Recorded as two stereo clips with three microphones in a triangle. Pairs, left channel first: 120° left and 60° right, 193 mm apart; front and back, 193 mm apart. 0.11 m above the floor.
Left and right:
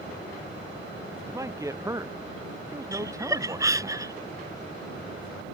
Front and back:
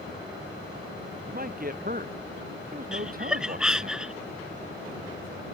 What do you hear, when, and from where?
1.3 s a man speaking: 135° right
2.9 s laughter: 100° right